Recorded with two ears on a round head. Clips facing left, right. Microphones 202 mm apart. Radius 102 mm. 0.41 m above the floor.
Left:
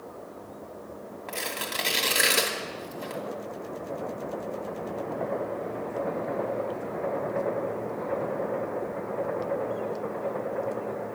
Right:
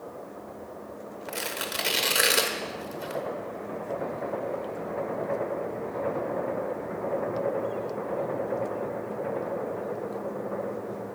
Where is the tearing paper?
10° right (ahead or behind), 0.7 m.